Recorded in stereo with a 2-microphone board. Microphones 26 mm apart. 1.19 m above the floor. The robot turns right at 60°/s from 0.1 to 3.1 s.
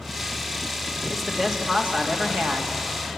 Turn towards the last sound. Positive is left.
turn(degrees=-65)